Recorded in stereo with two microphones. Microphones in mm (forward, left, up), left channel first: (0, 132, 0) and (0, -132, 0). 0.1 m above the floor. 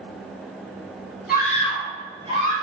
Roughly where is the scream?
Left.